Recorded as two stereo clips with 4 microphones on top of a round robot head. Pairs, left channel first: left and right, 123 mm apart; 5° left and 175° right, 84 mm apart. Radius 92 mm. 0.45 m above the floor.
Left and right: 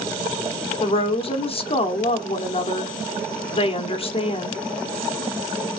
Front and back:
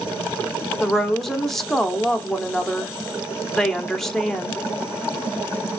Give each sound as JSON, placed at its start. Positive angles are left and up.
{"t": 0.8, "sound": "a woman speaking", "azimuth_deg": 90, "distance_m": 1.3}